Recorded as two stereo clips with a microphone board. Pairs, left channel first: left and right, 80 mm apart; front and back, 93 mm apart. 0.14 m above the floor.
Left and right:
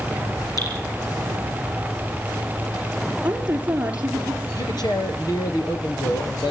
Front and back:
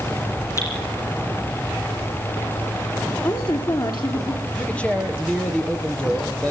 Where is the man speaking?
75° left, 4 m.